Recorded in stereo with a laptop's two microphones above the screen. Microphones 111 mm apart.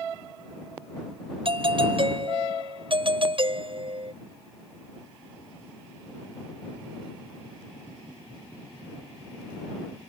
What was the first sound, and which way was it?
A doorbell, 55° right (ahead or behind).